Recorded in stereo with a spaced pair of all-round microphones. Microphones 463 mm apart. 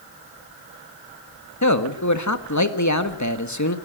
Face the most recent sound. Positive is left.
turn(degrees=35)  # may be behind; listen again after turning